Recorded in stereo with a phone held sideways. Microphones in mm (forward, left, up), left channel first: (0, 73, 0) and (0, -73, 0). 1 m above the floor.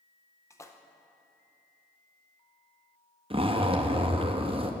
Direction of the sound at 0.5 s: 20° left (ahead or behind).